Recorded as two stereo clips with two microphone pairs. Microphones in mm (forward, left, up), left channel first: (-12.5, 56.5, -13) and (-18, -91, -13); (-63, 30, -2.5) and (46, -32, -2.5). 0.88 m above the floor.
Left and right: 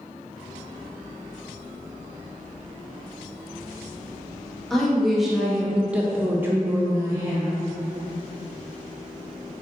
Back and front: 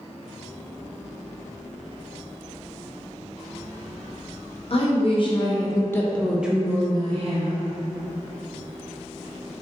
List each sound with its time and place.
4.7 s a woman speaking: straight behind, 1.0 m; by 7.6 s 25° right, 0.8 m